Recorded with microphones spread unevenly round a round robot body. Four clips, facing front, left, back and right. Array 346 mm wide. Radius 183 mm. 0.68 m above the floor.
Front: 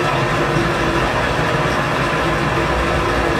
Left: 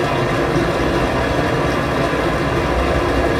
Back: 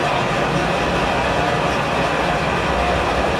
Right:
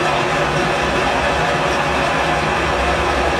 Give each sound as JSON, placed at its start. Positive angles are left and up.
{"t": 0.0, "sound": "running water", "azimuth_deg": 90, "distance_m": 0.9}